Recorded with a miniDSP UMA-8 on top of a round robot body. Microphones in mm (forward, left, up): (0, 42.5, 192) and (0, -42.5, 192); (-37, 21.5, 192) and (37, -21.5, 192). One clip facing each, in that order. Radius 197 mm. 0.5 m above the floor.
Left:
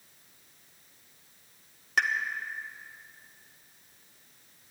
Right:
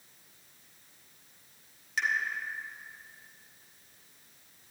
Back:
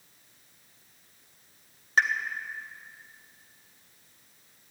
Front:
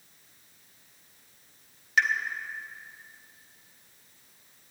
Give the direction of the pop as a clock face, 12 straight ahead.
9 o'clock.